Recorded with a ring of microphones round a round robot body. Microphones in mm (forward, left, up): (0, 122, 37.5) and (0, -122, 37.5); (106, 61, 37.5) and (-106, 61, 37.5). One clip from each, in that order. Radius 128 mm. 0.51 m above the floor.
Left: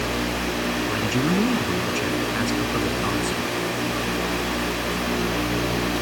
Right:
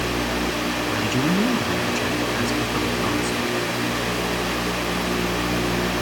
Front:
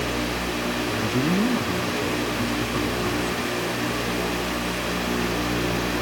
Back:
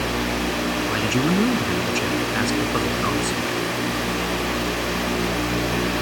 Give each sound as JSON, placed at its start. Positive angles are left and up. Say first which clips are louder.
{"t": 0.9, "sound": "a man speaking", "louder": "right 2 dB, back 3 dB", "azimuth_deg": 180}